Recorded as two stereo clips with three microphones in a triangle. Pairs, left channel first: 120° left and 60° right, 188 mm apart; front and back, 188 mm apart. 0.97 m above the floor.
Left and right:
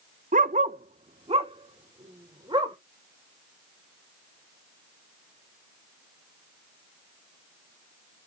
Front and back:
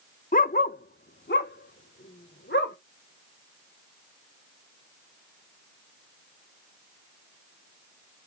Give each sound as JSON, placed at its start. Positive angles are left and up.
{"t": 0.3, "sound": "a dog barking", "azimuth_deg": -30, "distance_m": 0.5}